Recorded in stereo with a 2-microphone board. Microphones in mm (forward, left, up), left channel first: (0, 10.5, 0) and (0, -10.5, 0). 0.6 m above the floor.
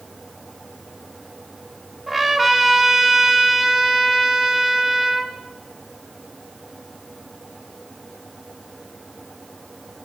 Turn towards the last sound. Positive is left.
turn(degrees=-5)  # may be behind; listen again after turning